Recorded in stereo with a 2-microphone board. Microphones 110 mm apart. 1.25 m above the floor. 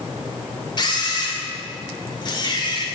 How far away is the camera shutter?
About 3 m.